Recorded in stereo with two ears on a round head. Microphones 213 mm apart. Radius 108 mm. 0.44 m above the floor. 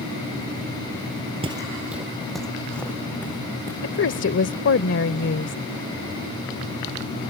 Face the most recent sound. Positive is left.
turn(degrees=55)  # may be behind; listen again after turning